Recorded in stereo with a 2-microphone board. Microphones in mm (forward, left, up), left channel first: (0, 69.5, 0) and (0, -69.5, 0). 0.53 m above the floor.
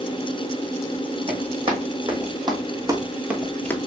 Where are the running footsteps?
40° right (ahead or behind), 1.9 m; by 3.8 s 20° left (ahead or behind), 0.5 m.